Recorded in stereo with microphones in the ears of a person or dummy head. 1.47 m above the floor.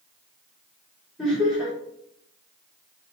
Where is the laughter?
5° right (ahead or behind), 3.5 m.